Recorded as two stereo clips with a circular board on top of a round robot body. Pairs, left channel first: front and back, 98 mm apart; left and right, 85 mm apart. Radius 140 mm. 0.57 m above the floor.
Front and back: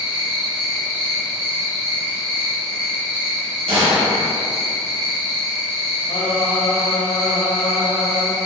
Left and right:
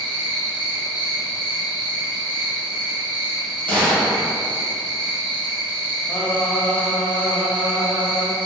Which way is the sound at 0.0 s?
105° right.